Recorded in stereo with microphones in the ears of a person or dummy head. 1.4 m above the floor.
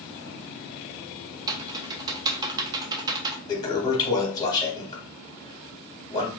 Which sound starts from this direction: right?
Typing on a keyboard, at 1.5 s.